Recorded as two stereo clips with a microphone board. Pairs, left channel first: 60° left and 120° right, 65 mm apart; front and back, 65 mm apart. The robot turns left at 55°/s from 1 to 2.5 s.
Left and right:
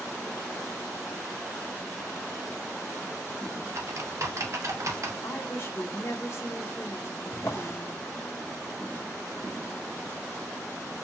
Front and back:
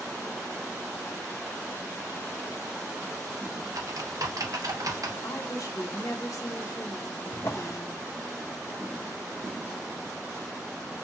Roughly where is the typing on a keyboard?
Behind.